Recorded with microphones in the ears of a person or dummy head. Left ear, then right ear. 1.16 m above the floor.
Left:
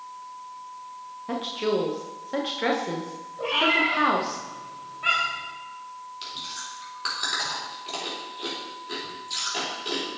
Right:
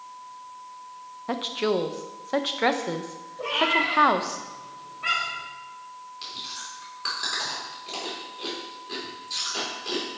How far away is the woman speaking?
About 0.6 m.